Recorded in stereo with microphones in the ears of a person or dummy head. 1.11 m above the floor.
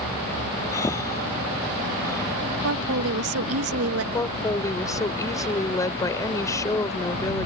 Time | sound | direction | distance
0.7 | breathing | 15° left (ahead or behind) | ?
2.6 | a woman speaking | 70° right (ahead or behind) | ?
4.1 | a woman speaking | 15° left (ahead or behind) | ?